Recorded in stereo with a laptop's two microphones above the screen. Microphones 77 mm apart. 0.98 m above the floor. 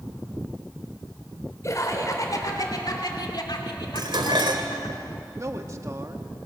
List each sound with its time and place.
1.6 s laughter: 45° left (ahead or behind), 3.5 m; by 5.0 s 75° left (ahead or behind), 2.5 m
4.0 s dishes clattering: 85° right, 2.5 m
5.4 s a man speaking: 45° right (ahead or behind), 1.5 m